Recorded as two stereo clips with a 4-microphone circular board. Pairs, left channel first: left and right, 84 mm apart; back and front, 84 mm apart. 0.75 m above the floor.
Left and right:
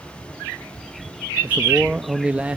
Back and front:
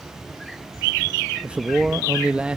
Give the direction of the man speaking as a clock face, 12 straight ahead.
2 o'clock.